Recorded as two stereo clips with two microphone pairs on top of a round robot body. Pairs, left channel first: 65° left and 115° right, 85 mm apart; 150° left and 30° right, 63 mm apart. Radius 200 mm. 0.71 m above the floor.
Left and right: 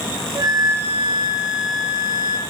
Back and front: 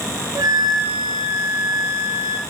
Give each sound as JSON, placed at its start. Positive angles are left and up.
{"t": 0.3, "sound": "a flute", "azimuth_deg": -65, "distance_m": 0.9}